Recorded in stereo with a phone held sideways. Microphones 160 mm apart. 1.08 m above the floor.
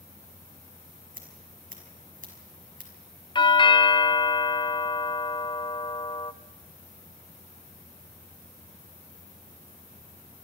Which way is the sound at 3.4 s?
30° left (ahead or behind).